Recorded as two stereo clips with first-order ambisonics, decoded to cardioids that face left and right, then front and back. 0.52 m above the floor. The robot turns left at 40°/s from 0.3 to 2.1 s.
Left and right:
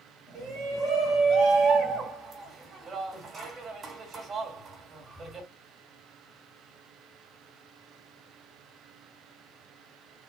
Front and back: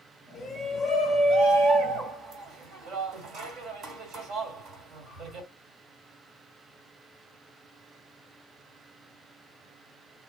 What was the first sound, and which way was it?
A shout, 80° right.